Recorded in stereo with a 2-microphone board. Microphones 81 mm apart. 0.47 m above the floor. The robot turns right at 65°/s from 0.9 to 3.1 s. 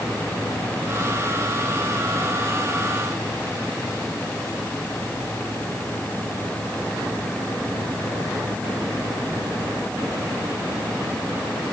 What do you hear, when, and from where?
Only background noise.